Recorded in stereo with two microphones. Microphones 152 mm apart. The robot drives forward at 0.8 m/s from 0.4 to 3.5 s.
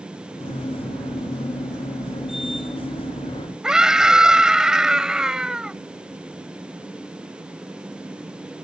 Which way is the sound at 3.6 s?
5° right (ahead or behind).